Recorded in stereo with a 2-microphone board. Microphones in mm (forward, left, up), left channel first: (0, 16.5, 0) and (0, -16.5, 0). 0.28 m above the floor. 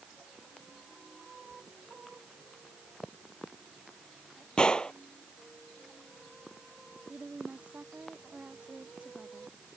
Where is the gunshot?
30° left (ahead or behind).